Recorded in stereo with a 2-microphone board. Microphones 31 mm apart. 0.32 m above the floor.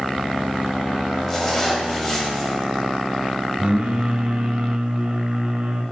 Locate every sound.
1.3 s a zipper: 15° left (ahead or behind), 1.8 m
3.6 s singing: 40° right (ahead or behind), 1.2 m